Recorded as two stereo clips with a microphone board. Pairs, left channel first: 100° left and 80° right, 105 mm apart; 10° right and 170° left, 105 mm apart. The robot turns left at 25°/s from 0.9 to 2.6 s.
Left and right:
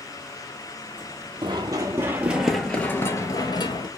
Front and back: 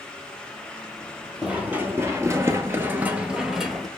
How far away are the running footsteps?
About 1.0 m.